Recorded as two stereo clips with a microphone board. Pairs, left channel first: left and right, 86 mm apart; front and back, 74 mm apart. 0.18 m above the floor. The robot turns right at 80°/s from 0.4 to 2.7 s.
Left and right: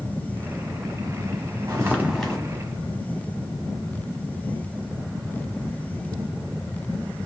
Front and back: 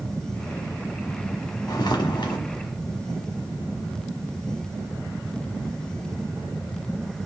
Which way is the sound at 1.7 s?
35° right.